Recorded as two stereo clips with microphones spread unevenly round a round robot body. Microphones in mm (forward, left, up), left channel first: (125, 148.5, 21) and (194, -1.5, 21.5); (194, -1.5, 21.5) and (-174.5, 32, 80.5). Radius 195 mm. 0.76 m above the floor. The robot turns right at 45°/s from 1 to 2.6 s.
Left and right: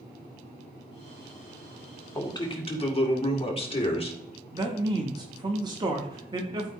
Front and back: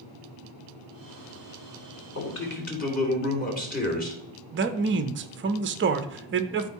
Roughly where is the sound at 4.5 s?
Behind right.